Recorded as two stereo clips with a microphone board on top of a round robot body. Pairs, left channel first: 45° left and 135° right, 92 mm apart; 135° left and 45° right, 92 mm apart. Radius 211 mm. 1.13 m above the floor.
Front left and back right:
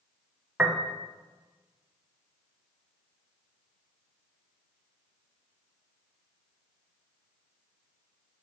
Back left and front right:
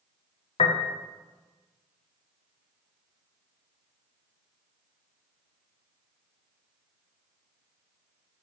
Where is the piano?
145° left, 0.5 m.